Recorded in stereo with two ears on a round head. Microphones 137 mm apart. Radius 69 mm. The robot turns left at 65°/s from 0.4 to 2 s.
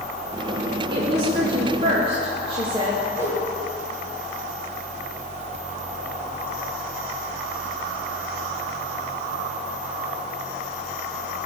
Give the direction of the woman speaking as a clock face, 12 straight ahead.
2 o'clock.